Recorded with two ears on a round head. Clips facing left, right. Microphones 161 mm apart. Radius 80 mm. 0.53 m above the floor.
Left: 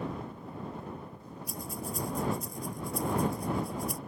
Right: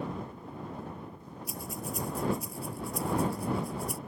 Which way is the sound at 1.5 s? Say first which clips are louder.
Even; 5° right (ahead or behind).